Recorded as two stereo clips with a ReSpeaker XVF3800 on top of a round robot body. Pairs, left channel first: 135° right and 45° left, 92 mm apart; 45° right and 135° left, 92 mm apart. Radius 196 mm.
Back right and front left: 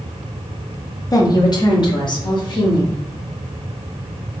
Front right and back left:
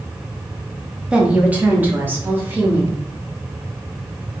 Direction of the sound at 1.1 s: 150° right.